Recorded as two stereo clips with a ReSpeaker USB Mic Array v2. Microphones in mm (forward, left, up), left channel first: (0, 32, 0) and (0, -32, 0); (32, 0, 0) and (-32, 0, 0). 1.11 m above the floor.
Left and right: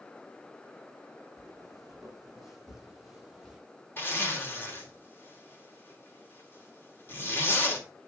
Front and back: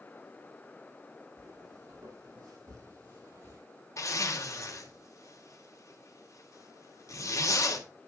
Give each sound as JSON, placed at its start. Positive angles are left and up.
{"t": 1.4, "sound": "footsteps", "azimuth_deg": -175, "distance_m": 3.5}
{"t": 4.0, "sound": "a zipper", "azimuth_deg": 35, "distance_m": 2.0}